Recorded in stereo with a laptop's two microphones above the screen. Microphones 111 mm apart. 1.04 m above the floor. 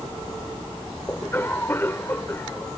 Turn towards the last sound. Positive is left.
turn(degrees=20)  # may be behind; listen again after turning